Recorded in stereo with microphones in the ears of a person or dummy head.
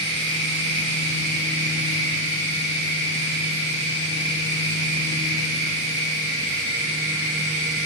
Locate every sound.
0.0 s a machine running: 45° left (ahead or behind), 1.7 m